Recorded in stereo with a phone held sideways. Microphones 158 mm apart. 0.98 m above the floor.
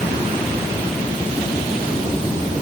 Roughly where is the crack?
No crack in this recording.